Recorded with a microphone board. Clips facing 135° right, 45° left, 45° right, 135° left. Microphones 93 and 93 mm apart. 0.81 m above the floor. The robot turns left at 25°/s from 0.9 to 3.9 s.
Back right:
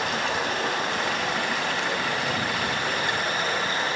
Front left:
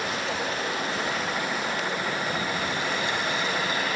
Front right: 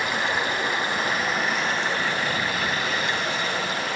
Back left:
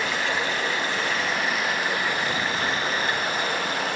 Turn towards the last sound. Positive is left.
turn(degrees=165)